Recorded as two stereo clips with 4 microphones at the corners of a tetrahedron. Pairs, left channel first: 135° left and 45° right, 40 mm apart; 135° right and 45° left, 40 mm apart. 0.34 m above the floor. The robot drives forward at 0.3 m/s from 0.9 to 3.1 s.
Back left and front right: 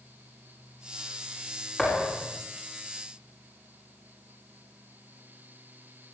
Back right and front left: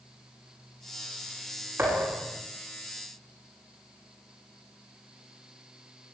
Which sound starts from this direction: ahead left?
A thud, at 1.8 s.